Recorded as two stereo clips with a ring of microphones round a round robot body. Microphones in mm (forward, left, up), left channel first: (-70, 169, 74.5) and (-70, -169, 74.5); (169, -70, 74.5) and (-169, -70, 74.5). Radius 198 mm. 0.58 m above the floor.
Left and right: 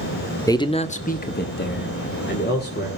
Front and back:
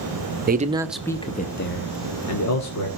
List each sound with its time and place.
0.5 s a man speaking: 160° left, 1.2 m; by 2.9 s 30° left, 2.5 m